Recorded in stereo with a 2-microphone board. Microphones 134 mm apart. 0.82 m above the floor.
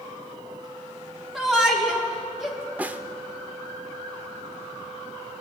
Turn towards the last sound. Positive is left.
turn(degrees=-10)  # may be behind; listen again after turning